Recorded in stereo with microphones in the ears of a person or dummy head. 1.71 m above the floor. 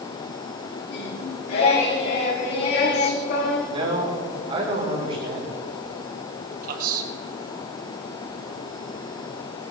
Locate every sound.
0.9 s singing: 65° left (ahead or behind), 3.5 m
3.7 s a man speaking: 35° right (ahead or behind), 5.5 m
6.6 s a man speaking: 55° right (ahead or behind), 1.8 m